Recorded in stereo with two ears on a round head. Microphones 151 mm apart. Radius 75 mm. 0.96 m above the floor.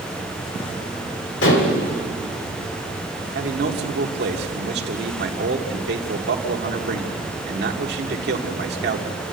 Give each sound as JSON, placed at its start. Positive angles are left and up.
{"t": 1.4, "sound": "dishes clattering", "side_deg": 80, "distance_m": 2.5}
{"t": 3.4, "sound": "a man speaking", "side_deg": -70, "distance_m": 2.0}